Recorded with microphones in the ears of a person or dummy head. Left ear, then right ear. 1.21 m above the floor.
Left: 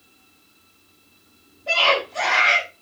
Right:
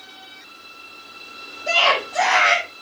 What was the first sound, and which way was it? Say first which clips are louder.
A scream: right 1 dB; 80° right.